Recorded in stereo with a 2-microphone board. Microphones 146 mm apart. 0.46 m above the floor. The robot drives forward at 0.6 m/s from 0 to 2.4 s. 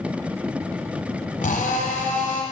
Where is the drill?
75° left (ahead or behind), 1.8 m; by 2.4 s 70° left (ahead or behind), 1.9 m.